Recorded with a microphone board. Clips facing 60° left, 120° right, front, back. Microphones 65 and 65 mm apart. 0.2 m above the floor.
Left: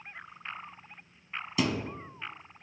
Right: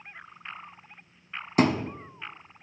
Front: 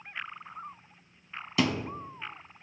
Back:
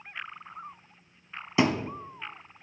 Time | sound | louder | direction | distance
1.6 | a thud | right 7 dB, back 3 dB | 125° right | 0.7 m